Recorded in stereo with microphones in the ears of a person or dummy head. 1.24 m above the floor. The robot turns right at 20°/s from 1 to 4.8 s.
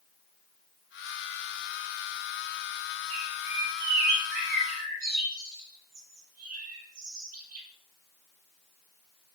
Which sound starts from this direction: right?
A bird, at 3.1 s.